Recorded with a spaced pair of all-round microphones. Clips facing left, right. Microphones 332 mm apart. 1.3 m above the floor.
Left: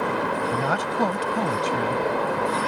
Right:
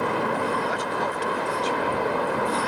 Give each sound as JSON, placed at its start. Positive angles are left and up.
{"t": 0.5, "sound": "a woman speaking", "side_deg": 70}